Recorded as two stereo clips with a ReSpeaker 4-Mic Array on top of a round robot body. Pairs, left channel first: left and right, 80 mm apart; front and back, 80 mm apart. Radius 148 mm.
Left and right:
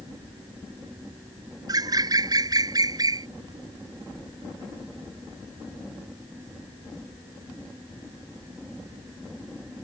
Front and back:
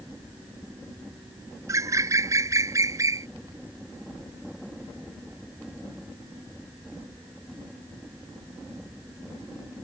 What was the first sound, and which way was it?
A bird, 130° right.